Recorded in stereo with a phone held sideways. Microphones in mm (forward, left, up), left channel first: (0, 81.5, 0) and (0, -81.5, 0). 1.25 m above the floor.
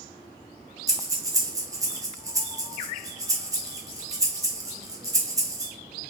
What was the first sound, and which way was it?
Breathing, 20° right (ahead or behind).